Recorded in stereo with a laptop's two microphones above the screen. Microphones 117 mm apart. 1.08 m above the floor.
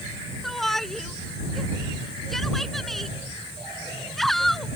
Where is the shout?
Centre (ahead or behind).